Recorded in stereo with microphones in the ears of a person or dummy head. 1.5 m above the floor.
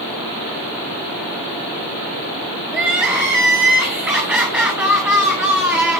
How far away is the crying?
About 4 m.